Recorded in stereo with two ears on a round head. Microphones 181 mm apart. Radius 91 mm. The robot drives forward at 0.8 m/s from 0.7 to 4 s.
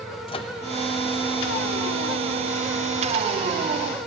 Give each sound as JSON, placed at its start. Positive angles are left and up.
{"t": 0.3, "sound": "a microwave", "side_deg": 25, "distance_m": 0.7}